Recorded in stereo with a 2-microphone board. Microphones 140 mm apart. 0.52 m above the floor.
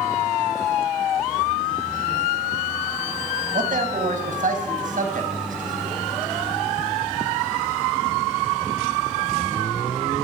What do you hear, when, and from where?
3.5 s a man speaking: 70° right (ahead or behind), 4 m